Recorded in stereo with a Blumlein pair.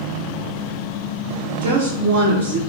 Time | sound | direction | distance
1.6 | a woman speaking | 60° right | 1.2 m